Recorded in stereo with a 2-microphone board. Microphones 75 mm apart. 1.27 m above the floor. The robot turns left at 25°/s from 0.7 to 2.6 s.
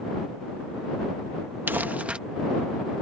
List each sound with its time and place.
1.7 s crumpling: 30° right (ahead or behind); by 2.2 s 15° right (ahead or behind)